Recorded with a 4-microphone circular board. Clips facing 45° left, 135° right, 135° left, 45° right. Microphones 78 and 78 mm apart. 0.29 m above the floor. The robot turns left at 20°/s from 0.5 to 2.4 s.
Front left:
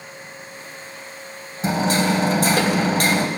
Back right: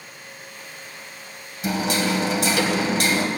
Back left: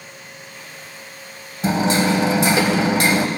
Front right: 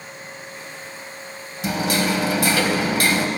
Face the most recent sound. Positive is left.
turn(degrees=75)